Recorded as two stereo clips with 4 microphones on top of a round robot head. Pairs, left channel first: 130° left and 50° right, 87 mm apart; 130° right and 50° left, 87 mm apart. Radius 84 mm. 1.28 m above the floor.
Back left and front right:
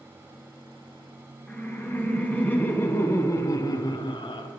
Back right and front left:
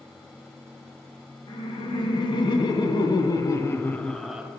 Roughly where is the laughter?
Behind right.